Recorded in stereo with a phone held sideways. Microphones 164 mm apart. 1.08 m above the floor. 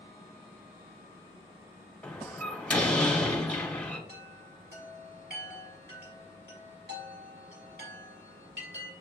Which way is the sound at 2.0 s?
10° left (ahead or behind).